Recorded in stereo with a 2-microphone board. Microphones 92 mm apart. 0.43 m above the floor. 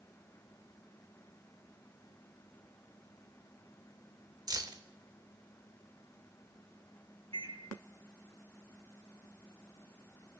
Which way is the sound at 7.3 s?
80° right.